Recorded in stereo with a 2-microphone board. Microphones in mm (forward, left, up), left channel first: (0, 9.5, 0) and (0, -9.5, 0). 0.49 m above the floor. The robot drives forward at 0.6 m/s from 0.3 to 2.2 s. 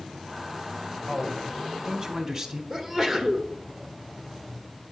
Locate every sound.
1.1 s a man speaking: 30° right (ahead or behind), 2 m; by 2.6 s 40° right (ahead or behind), 1.6 m
2.7 s a sneeze: 25° right (ahead or behind), 1.1 m